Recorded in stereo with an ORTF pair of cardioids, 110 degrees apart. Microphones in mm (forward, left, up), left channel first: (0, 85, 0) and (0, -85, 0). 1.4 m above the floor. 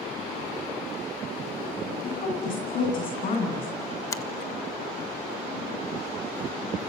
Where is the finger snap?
20° left, 1.4 m.